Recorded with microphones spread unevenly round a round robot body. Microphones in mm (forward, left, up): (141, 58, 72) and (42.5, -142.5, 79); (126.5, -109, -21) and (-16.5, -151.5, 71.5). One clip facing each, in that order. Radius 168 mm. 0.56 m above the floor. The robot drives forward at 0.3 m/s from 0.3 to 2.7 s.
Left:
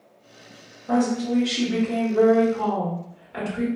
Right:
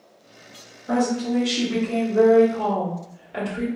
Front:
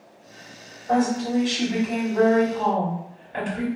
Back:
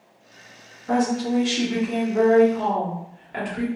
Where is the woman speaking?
165° left, 0.9 m; by 3.7 s 175° left, 1.4 m.